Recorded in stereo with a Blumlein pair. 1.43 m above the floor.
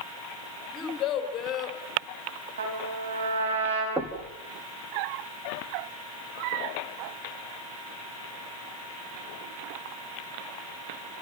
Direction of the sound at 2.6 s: 65° right.